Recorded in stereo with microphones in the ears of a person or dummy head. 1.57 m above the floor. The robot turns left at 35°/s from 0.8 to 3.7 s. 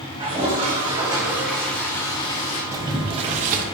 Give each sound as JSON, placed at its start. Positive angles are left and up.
{"t": 0.2, "sound": "a toilet flushing", "azimuth_deg": -150, "distance_m": 2.5}
{"t": 2.7, "sound": "boiling", "azimuth_deg": -15, "distance_m": 1.5}